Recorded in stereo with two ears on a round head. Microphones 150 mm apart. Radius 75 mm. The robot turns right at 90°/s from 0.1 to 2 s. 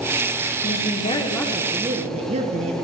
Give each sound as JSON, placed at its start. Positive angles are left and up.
{"t": 0.6, "sound": "a woman speaking", "azimuth_deg": 100, "distance_m": 1.0}